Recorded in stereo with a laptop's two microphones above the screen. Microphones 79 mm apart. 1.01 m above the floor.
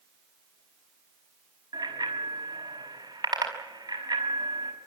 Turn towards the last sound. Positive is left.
turn(degrees=-75)  # may be behind; listen again after turning